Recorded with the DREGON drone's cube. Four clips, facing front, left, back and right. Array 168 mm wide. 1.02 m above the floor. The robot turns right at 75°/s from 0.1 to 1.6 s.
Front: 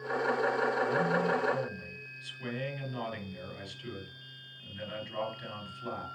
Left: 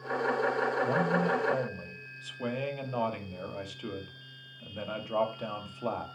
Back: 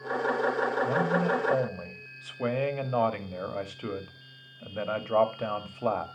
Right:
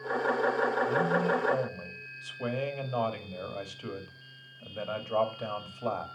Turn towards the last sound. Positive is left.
turn(degrees=180)